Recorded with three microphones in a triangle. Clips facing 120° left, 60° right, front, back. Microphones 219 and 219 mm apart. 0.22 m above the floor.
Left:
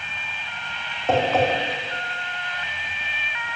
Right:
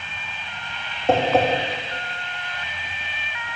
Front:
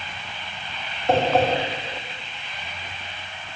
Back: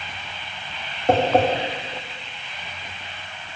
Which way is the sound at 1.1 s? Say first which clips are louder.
Right 2 dB, back 2 dB; 135° right.